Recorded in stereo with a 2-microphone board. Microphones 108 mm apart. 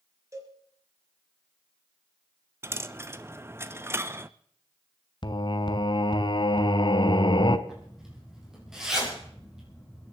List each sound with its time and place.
0.3 s a cowbell: 30° right (ahead or behind), 3 m
2.6 s a dropped coin: 25° right (ahead or behind), 0.5 m
5.2 s singing: 45° left (ahead or behind), 0.8 m
7.7 s a zipper: 5° right (ahead or behind), 5 m